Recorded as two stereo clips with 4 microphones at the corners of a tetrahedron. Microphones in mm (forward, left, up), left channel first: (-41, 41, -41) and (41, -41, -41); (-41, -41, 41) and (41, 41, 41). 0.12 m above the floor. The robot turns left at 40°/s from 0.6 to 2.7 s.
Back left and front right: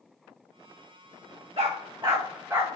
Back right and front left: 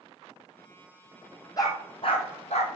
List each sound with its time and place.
1.6 s a dog barking: 80° right, 2 m; by 2.7 s 120° right, 2 m